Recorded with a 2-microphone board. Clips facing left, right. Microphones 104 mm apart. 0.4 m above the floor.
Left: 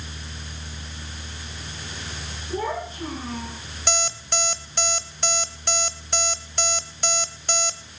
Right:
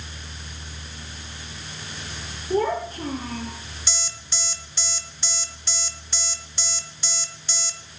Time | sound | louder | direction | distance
2.5 | a child speaking | right 5 dB | 60° right (ahead or behind) | 5.5 m
3.9 | an alarm clock | left 13 dB | 55° left (ahead or behind) | 1.0 m